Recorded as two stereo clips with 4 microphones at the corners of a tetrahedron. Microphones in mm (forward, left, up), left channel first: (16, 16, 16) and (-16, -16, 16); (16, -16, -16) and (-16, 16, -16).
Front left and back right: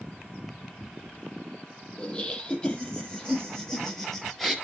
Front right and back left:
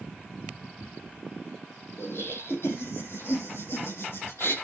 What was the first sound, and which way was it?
Laughter, 20° right.